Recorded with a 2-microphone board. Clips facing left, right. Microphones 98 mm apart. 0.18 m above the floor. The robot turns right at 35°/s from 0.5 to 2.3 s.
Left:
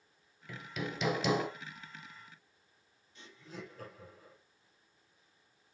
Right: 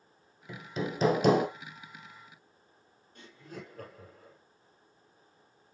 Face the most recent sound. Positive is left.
turn(degrees=-50)  # may be behind; listen again after turning